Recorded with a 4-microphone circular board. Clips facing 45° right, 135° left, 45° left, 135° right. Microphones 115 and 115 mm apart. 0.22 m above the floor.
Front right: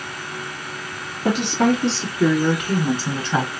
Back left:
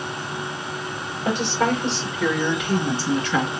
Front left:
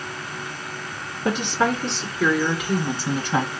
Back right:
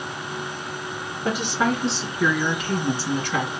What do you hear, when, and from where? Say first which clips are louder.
1.2 s a woman speaking: front right 3 dB, front left 1 dB; 55° right, 3.5 m; by 3.5 s 5° left, 1.7 m